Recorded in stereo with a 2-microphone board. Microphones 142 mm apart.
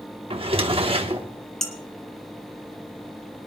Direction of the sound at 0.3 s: 40° right (ahead or behind).